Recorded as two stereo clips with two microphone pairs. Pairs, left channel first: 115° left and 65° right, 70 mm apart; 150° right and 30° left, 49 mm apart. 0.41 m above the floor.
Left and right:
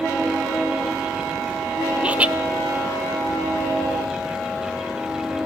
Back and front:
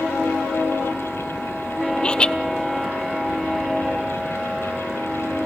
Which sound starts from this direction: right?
Laughter, at 2.0 s.